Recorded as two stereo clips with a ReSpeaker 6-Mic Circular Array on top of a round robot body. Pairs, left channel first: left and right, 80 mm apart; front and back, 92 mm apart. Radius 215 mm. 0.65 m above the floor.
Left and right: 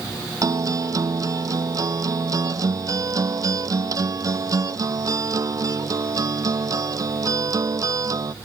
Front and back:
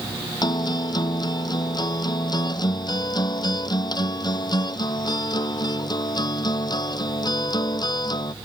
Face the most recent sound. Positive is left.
turn(degrees=-45)